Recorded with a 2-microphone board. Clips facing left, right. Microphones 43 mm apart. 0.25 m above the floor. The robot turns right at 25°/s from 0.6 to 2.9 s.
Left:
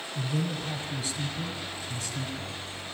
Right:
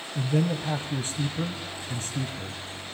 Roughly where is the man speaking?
Behind right.